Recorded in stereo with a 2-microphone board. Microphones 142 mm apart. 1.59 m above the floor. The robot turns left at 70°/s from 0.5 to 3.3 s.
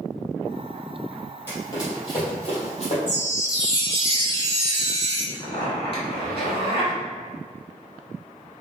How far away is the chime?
About 1.1 m.